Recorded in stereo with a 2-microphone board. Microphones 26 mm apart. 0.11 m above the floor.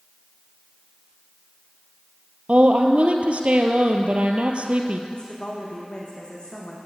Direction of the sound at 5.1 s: 35° left (ahead or behind).